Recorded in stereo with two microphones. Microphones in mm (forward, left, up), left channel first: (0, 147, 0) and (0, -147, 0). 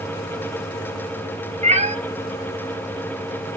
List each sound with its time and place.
1.6 s a cat meowing: 25° right (ahead or behind), 0.8 m